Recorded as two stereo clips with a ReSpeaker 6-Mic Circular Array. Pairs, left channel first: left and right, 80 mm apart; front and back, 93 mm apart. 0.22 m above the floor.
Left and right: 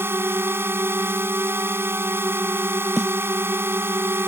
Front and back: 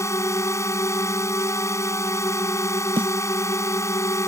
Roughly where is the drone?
Ahead right.